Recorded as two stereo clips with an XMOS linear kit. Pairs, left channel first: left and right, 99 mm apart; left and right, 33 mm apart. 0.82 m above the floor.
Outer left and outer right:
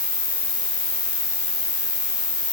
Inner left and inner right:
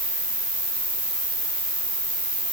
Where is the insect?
65° right (ahead or behind), 5 m.